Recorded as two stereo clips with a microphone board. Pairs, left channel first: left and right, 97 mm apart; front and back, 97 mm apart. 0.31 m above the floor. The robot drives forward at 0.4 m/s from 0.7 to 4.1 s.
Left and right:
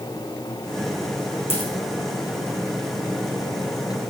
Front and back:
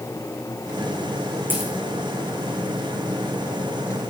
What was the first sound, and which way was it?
A dropped coin, 110° left.